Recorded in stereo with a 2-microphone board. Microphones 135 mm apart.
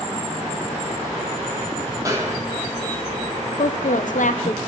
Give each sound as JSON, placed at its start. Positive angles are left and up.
{"t": 2.0, "sound": "a snare drum", "side_deg": -25, "distance_m": 1.3}
{"t": 3.6, "sound": "a woman speaking", "side_deg": 85, "distance_m": 0.8}